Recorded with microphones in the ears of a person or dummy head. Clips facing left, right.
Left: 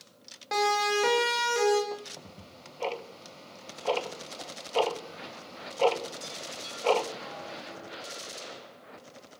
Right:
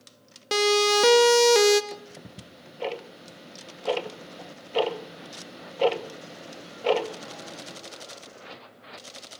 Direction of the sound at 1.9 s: 20° right (ahead or behind).